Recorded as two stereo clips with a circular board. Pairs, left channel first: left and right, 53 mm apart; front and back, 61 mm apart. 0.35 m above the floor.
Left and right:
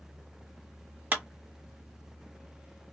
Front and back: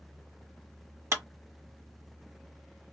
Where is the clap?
140° right, 1.4 m.